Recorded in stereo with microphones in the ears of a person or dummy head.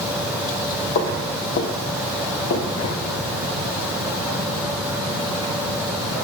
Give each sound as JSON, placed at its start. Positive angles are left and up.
{"t": 0.9, "sound": "footsteps", "side_deg": 55, "distance_m": 2.5}